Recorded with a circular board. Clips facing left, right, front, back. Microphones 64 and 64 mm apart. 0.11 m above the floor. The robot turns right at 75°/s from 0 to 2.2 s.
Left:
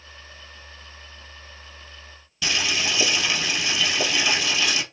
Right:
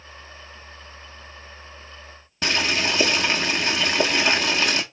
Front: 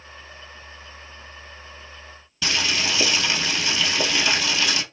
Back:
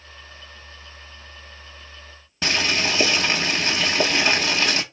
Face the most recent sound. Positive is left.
turn(degrees=-135)